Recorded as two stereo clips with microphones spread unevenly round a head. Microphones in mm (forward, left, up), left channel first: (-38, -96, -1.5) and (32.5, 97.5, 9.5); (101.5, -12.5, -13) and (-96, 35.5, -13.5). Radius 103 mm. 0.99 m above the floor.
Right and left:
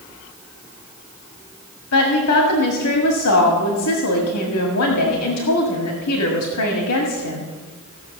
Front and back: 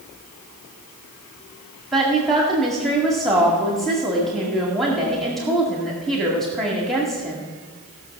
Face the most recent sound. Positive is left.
turn(degrees=-100)